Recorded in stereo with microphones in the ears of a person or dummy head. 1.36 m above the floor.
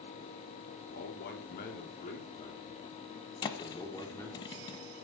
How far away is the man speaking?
About 4 m.